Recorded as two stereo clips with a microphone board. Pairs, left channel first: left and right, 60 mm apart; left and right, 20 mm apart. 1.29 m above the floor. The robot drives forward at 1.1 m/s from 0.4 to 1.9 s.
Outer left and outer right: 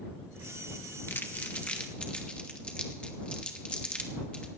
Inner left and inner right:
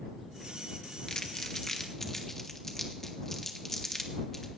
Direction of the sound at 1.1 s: 40° left (ahead or behind).